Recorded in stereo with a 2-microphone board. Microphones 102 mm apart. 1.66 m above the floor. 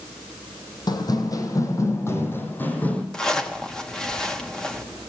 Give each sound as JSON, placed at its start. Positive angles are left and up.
{"t": 0.9, "sound": "running footsteps", "side_deg": 45, "distance_m": 3.0}
{"t": 3.1, "sound": "a zipper", "side_deg": 5, "distance_m": 2.5}